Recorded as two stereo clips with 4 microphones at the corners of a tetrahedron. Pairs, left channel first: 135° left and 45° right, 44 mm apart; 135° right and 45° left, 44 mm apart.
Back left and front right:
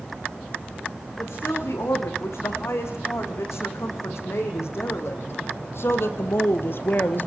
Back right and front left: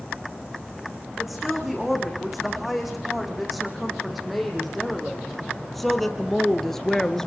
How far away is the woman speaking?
About 8 m.